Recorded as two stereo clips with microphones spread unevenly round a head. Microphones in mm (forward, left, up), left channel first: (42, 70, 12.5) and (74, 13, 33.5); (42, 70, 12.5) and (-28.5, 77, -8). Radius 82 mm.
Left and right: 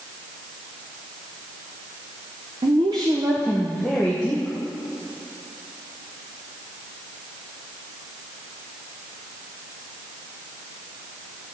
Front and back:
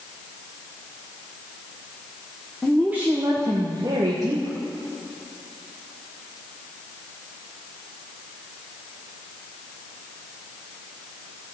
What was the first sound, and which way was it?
A woman speaking, 95° right.